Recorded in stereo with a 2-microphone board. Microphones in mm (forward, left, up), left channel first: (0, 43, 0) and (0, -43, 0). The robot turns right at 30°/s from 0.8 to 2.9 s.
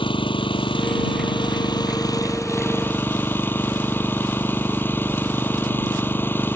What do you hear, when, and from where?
0.0 s an engine running: 95° left; by 6.5 s 155° left